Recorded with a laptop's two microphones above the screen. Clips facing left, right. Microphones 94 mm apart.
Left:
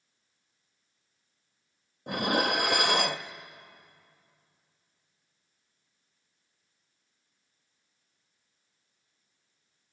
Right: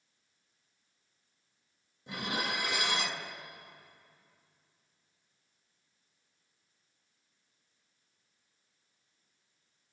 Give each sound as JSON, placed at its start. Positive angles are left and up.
{"t": 2.1, "sound": "dishes clattering", "side_deg": 65, "distance_m": 0.7}